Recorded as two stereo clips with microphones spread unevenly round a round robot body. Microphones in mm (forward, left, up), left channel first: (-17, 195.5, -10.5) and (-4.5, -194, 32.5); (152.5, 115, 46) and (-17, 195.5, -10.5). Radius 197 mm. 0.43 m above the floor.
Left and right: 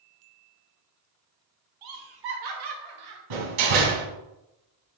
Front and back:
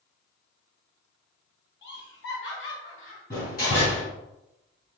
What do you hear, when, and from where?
1.8 s laughter: 65° right, 1.9 m; by 3.2 s 70° right, 2.5 m
3.3 s a door slam: 95° right, 3.5 m